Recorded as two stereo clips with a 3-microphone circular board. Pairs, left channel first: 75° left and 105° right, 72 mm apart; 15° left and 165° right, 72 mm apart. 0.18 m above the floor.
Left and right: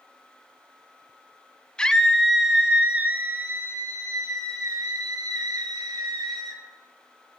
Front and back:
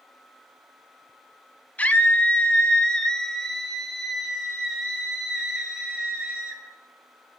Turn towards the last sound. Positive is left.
turn(degrees=-85)